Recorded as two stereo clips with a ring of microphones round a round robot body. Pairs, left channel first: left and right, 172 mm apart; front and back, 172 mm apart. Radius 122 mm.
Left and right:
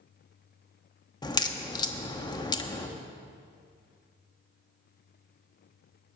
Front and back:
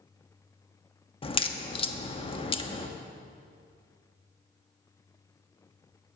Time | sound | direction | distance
1.2 | a crack | 35° left | 1.2 m